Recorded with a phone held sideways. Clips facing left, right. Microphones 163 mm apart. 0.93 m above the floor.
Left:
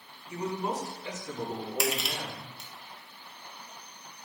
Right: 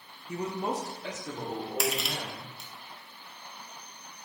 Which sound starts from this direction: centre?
Crushing, at 1.8 s.